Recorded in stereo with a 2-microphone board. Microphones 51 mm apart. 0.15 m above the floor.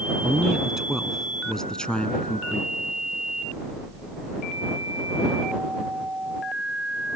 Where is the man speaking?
20° right (ahead or behind); by 2.7 s 35° left (ahead or behind).